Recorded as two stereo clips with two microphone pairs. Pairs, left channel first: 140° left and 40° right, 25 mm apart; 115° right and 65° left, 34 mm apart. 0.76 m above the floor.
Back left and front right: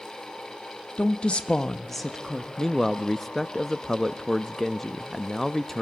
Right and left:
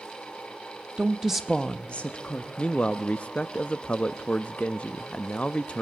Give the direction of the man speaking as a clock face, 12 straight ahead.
5 o'clock.